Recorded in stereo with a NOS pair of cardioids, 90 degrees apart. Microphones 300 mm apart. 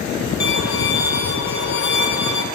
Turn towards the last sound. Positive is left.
turn(degrees=60)